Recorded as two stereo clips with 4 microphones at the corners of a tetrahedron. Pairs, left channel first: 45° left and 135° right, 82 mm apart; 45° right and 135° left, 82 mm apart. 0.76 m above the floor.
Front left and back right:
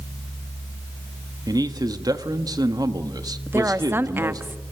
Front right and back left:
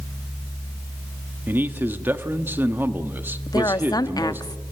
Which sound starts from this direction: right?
A woman speaking, at 3.5 s.